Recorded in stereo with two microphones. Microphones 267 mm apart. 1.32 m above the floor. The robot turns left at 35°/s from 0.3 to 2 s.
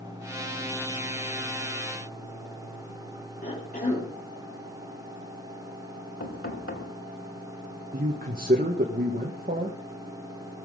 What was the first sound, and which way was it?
A cough, 35° left (ahead or behind).